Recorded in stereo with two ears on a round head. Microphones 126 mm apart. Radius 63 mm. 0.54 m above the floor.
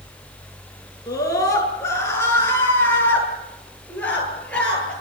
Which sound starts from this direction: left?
A scream, at 1.1 s.